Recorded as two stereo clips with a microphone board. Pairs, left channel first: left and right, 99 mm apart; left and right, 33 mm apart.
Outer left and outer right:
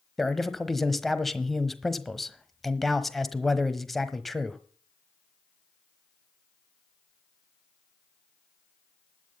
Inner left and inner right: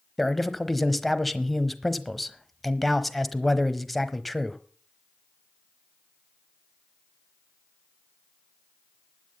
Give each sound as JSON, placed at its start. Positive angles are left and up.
{"t": 0.2, "sound": "a man speaking", "side_deg": 0, "distance_m": 1.1}